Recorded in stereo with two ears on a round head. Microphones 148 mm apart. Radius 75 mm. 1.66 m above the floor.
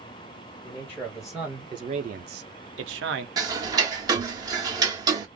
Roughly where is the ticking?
Right.